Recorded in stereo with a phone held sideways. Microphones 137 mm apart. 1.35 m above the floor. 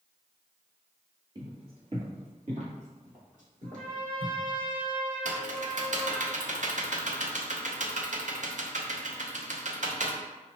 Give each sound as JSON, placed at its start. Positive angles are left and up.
{"t": 1.4, "sound": "footsteps", "side_deg": -30, "distance_m": 1.7}
{"t": 3.6, "sound": "a trumpet", "side_deg": -80, "distance_m": 2.0}
{"t": 5.2, "sound": "typing on a keyboard", "side_deg": -65, "distance_m": 0.6}